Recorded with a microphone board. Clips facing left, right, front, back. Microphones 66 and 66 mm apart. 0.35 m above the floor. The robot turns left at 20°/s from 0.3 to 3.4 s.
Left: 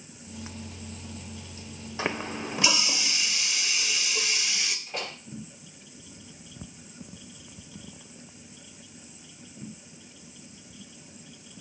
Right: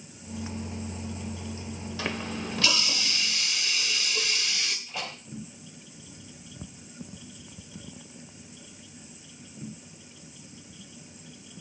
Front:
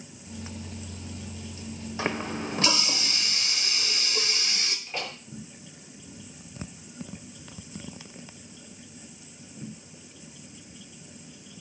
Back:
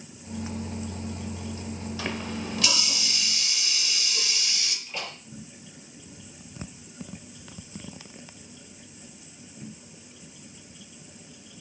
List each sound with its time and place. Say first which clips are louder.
2.0 s a running tap: left 3 dB, front 4 dB; 40° left, 0.9 m; by 4.8 s 10° left, 0.9 m
4.9 s a door slam: left 1 dB, front 2 dB; 60° left, 5 m